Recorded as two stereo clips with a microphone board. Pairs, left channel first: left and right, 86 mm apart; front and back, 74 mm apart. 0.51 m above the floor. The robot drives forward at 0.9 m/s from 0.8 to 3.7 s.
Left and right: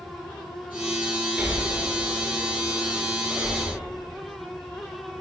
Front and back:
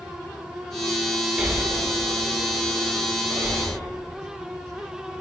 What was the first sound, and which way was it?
Breathing, 135° right.